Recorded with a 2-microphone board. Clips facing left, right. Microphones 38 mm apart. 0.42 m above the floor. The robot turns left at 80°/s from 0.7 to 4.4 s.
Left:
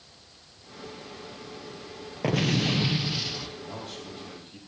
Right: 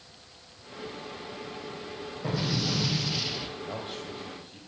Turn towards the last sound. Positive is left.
turn(degrees=170)